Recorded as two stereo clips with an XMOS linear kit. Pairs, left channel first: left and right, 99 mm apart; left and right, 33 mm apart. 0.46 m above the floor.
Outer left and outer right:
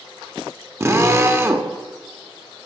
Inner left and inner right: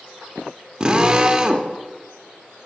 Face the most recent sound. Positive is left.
turn(degrees=-30)  # may be behind; listen again after turning